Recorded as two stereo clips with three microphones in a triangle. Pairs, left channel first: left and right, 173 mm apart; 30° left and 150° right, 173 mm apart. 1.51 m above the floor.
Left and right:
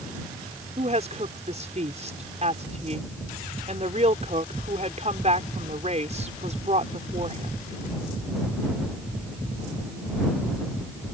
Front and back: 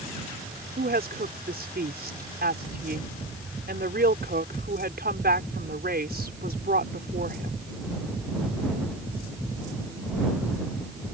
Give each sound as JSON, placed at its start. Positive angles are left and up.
{"t": 0.8, "sound": "a woman speaking", "azimuth_deg": -135}